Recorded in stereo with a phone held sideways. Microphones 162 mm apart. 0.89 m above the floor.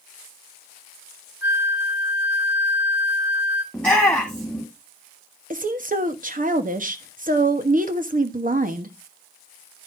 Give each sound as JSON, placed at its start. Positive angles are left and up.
{"t": 1.4, "sound": "a flute", "side_deg": -10, "distance_m": 1.6}
{"t": 3.7, "sound": "a shout", "side_deg": 5, "distance_m": 1.8}
{"t": 5.5, "sound": "a woman speaking", "side_deg": -55, "distance_m": 1.2}